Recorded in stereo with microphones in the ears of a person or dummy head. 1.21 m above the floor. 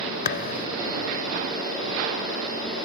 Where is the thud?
55° left (ahead or behind).